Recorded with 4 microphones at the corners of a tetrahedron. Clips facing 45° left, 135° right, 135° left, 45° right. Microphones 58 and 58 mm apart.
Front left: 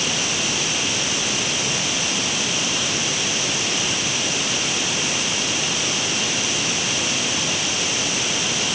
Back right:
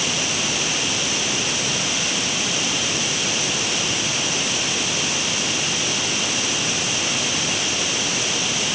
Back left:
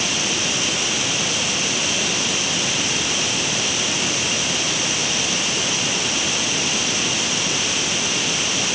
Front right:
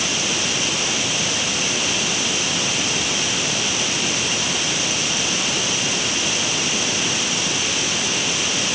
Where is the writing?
No writing in this recording.